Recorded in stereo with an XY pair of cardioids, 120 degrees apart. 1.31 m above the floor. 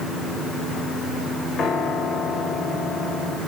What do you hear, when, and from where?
1.6 s a piano: 60° left, 2 m